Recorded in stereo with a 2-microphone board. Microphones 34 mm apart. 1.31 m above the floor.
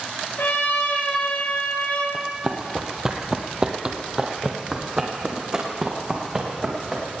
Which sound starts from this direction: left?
A trumpet, at 0.4 s.